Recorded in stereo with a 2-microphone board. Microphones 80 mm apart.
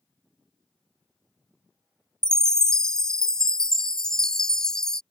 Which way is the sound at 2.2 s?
10° left (ahead or behind).